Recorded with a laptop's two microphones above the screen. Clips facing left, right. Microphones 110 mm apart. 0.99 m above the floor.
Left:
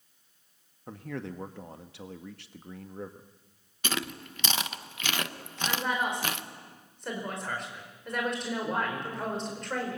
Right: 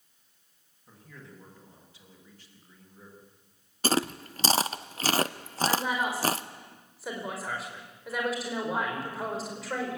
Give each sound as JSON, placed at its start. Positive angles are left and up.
{"t": 0.9, "sound": "a man speaking", "side_deg": 75, "distance_m": 1.4}
{"t": 3.8, "sound": "chewing", "side_deg": -35, "distance_m": 0.7}
{"t": 5.6, "sound": "a woman speaking", "side_deg": -5, "distance_m": 4.5}